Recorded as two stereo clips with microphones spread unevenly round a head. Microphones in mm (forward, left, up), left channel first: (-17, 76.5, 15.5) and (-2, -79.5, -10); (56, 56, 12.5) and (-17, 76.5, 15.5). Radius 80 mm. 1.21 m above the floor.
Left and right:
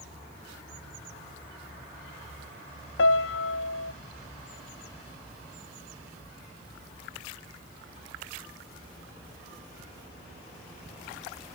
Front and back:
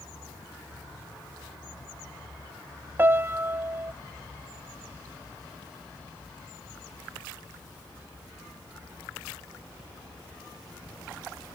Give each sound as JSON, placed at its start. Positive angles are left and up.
{"t": 3.0, "sound": "a piano", "azimuth_deg": 100}